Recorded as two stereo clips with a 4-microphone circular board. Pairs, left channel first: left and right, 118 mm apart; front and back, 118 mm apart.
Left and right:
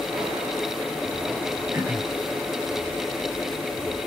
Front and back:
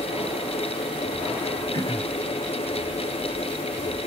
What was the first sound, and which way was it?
Throat clearing, 25° right.